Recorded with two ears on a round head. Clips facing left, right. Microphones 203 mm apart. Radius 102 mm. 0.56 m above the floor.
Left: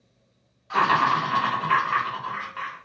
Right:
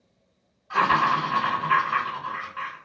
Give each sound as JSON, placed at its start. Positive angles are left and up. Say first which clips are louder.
{"t": 0.7, "sound": "laughter", "louder": "left 1 dB", "side_deg": 45, "distance_m": 1.4}